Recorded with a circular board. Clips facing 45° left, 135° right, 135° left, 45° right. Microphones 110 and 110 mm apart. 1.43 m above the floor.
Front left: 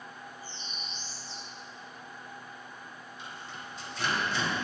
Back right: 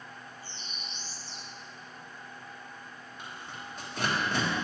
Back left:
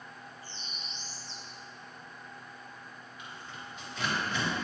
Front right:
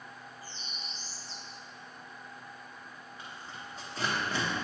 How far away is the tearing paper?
About 1.4 m.